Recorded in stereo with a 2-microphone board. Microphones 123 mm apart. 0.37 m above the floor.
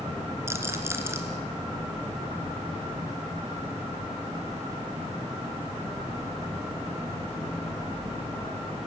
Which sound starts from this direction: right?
A rattle, at 0.5 s.